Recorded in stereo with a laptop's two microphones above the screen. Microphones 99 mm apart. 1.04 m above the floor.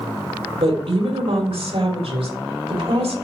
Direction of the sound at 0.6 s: 80° right.